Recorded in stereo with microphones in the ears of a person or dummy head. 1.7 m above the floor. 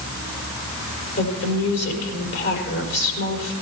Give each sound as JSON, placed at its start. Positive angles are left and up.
{"t": 1.2, "sound": "a woman speaking", "side_deg": 55, "distance_m": 5.5}